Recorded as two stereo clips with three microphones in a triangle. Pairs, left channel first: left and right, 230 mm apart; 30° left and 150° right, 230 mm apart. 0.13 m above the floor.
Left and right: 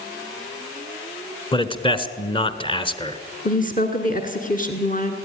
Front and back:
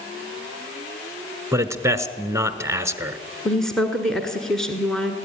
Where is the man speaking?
140° left, 1.3 m.